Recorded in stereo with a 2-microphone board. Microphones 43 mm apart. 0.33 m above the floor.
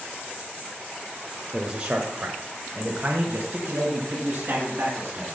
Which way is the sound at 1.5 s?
20° right (ahead or behind).